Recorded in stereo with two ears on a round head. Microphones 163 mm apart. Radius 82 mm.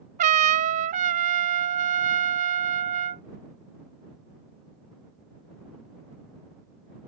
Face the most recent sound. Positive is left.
turn(degrees=-40)  # may be behind; listen again after turning